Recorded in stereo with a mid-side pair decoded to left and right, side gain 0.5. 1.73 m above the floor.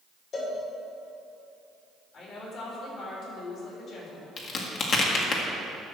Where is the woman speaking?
60° left, 3.5 m.